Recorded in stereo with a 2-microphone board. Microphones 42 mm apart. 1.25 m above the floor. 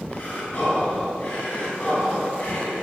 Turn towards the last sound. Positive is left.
turn(degrees=35)  # may be behind; listen again after turning